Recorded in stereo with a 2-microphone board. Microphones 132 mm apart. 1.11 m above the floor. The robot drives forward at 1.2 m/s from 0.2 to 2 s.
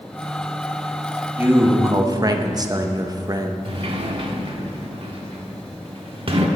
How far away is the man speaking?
About 1.5 m.